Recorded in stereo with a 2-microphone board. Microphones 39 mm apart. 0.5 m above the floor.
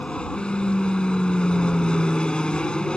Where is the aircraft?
20° left (ahead or behind).